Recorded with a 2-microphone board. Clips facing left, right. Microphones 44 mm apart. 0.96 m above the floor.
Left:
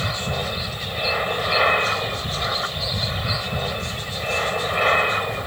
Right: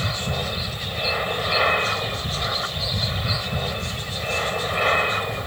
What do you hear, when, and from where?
0.0 s an aircraft: 10° left (ahead or behind)